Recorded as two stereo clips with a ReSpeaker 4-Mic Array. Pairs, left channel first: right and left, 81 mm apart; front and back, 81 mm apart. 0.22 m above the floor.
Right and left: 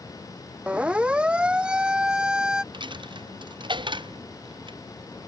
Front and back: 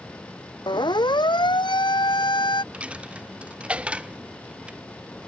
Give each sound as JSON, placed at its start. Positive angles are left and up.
{"t": 0.7, "sound": "a siren", "azimuth_deg": 15}
{"t": 2.7, "sound": "a dropped coin", "azimuth_deg": 105}